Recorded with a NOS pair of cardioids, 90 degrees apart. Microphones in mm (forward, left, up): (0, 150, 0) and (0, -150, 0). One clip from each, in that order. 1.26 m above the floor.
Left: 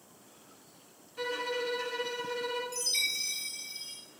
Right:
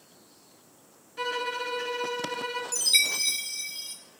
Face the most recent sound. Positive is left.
turn(degrees=-55)